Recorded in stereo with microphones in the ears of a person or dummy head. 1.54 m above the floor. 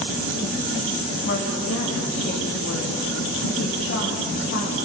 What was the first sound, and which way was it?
A woman speaking, 50° left (ahead or behind).